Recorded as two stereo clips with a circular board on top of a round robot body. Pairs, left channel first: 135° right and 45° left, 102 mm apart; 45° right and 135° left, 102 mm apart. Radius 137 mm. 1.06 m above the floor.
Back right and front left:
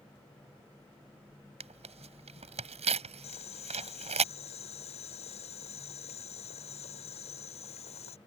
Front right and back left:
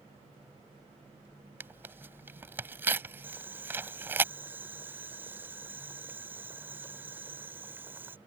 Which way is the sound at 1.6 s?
65° left.